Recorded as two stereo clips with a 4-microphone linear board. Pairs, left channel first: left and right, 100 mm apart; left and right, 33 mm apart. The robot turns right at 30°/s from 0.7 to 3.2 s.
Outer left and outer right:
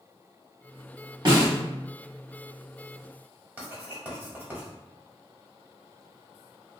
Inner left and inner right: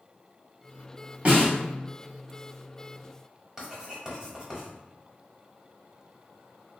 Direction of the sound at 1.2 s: 45° right (ahead or behind).